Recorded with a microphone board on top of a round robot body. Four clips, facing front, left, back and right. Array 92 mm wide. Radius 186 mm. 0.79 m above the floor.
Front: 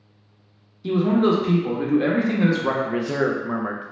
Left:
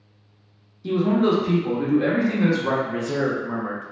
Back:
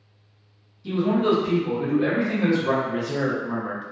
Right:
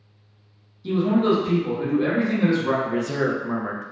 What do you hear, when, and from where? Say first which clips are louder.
0.8 s a man speaking: even, front 2 dB; 15° left, 0.9 m
2.8 s a man speaking: right 1 dB, front 3 dB; 25° right, 0.6 m